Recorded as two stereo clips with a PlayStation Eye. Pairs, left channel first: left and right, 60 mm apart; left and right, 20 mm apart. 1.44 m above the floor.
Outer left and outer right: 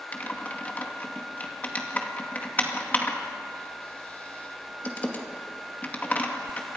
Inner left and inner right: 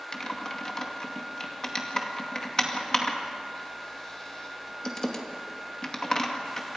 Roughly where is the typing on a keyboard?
Left.